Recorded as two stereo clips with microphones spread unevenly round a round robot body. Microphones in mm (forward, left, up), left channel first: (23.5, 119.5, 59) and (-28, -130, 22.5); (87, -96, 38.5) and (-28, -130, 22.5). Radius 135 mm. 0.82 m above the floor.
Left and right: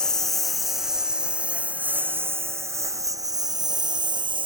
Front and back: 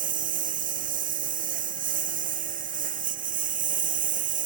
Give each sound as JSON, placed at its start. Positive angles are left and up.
{"t": 0.0, "sound": "a lawn mower", "azimuth_deg": 165}